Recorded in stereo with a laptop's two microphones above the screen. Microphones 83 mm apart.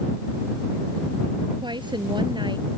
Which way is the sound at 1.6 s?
65° right (ahead or behind).